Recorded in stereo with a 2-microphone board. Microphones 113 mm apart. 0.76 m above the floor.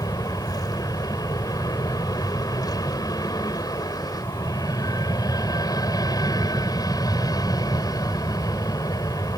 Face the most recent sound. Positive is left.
turn(degrees=35)  # may be behind; listen again after turning